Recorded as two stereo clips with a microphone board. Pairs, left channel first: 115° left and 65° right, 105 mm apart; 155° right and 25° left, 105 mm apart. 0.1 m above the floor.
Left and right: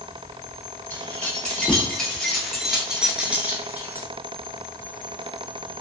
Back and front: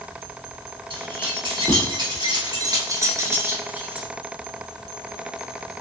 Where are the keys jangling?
35° left, 2.0 m; by 4.1 s 45° right, 1.1 m.